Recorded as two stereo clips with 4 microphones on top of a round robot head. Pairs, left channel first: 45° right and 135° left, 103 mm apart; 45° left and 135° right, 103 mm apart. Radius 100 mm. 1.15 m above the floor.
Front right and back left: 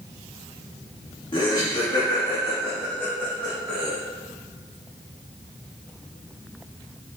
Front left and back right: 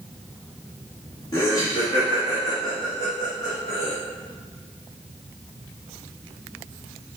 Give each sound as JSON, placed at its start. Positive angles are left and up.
{"t": 1.3, "sound": "laughter", "azimuth_deg": -5, "distance_m": 2.0}